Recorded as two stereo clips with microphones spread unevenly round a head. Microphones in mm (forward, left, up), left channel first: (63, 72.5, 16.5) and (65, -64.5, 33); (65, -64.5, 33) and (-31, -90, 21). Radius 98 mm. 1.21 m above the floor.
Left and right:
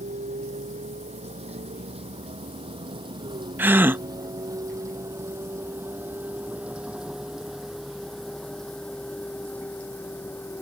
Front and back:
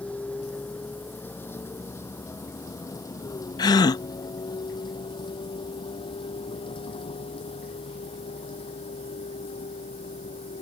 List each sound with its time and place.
0.0 s a vehicle: 60° right; by 10.6 s 15° left
3.6 s a gasp: 20° right